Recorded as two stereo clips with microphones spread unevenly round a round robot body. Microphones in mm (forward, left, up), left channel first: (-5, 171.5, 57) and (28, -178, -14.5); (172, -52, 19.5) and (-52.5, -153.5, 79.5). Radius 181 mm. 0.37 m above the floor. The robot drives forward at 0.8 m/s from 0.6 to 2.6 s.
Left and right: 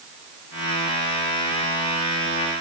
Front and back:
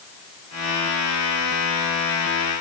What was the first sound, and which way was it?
Only background noise.